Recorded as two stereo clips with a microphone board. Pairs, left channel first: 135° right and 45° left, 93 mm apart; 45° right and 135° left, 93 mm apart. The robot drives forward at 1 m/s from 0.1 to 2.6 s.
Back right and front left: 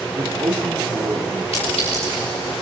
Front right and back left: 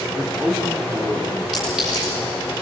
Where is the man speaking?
65° left, 4.5 m; by 1.4 s 80° left, 4.5 m.